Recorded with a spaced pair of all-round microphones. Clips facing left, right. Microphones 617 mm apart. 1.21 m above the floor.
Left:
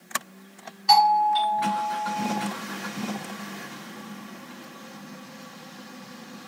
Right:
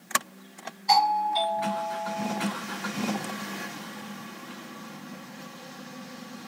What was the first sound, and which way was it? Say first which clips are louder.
A doorbell: left 4 dB; 40° left (ahead or behind).